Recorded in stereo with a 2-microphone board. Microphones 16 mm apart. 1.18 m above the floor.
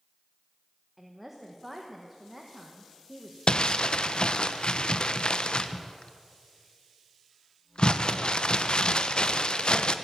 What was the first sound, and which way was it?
A woman speaking, 10° right (ahead or behind).